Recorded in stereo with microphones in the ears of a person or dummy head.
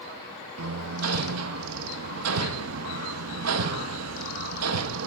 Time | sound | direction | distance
0.6 | hammering | 90° right | 0.8 m